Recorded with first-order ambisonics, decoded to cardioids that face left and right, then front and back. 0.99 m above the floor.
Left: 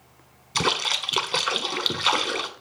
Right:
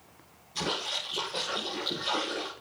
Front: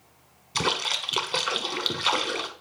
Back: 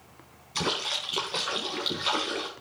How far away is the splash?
About 1.4 m.